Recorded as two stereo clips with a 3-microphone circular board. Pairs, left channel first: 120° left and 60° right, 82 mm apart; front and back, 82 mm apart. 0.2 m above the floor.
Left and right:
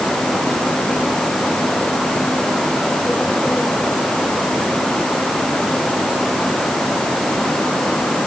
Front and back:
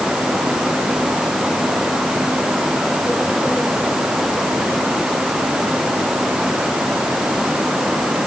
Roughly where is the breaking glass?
No breaking glass in this recording.